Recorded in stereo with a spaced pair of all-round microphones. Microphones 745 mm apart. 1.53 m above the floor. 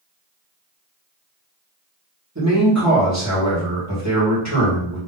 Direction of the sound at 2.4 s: 20° right (ahead or behind).